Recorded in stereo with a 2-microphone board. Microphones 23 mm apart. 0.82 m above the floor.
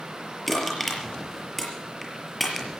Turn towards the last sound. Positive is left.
turn(degrees=5)  # may be behind; listen again after turning